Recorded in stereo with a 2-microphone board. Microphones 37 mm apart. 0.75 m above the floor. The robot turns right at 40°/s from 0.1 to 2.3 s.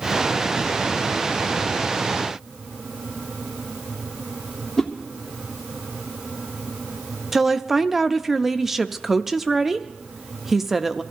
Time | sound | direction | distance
4.8 | a whoosh | 10° left (ahead or behind) | 1.1 m
7.3 | a woman speaking | 5° right (ahead or behind) | 0.5 m